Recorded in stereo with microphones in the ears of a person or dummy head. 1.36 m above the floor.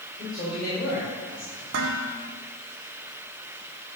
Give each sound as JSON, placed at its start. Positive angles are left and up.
{"t": 0.2, "sound": "a man speaking", "side_deg": 40, "distance_m": 5.5}
{"t": 1.7, "sound": "dishes clattering", "side_deg": -65, "distance_m": 1.5}